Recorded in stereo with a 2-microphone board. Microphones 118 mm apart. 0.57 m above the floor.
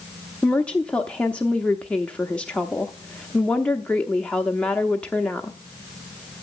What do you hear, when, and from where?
0.4 s a woman speaking: 10° left (ahead or behind), 0.8 m